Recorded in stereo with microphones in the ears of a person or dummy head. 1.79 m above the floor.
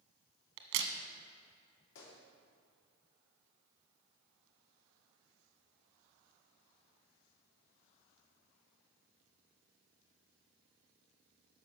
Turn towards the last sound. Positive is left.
turn(degrees=75)  # may be behind; listen again after turning